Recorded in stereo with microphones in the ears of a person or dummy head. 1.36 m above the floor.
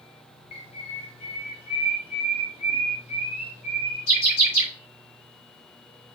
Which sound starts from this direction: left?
A bird, at 0.5 s.